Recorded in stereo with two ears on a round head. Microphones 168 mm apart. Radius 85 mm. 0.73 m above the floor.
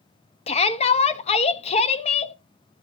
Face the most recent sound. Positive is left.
turn(degrees=35)  # may be behind; listen again after turning